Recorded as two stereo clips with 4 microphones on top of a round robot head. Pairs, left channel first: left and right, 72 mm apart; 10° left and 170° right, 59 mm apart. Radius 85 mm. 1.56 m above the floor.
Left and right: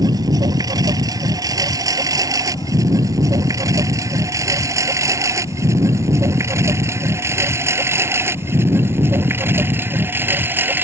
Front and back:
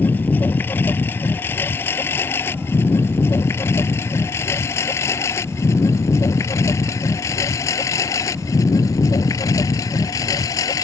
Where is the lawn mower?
55° right; by 10.9 s 25° right.